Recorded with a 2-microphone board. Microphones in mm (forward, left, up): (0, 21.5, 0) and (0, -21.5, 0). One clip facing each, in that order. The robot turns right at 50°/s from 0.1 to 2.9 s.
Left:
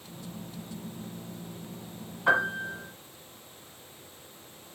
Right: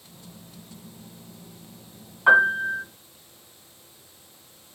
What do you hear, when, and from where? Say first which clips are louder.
2.3 s a piano: right 8 dB; 35° right (ahead or behind), 1.9 m; by 2.8 s 10° right (ahead or behind), 1.9 m